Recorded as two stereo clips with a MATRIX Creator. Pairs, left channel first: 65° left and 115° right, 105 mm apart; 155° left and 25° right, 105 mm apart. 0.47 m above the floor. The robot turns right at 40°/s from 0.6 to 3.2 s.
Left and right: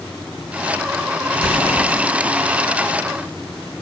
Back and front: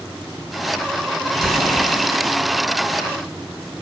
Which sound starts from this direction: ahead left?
An explosion, at 1.3 s.